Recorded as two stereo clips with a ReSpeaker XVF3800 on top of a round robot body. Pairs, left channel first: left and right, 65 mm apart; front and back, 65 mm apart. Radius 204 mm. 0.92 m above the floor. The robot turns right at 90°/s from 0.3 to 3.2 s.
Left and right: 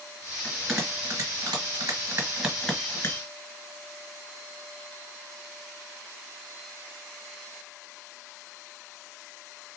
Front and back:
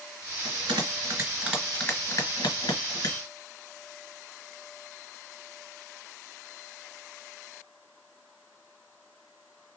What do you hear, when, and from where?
0.4 s a bell: 165° left, 1.9 m; by 3.2 s 50° left, 1.9 m